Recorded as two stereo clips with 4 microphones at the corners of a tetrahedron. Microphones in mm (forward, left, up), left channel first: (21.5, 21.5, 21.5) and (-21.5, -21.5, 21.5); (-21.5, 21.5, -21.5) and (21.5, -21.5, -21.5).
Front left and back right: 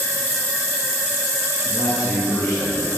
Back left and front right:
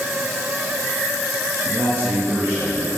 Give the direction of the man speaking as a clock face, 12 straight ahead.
12 o'clock.